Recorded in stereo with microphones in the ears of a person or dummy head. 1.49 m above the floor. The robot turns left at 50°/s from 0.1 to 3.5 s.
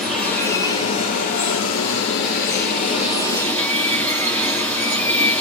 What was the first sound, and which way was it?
Running water, straight behind.